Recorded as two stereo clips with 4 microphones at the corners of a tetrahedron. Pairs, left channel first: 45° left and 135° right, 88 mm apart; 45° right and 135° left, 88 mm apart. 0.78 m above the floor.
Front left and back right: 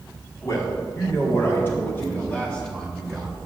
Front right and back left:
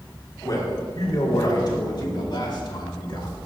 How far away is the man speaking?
About 2.5 m.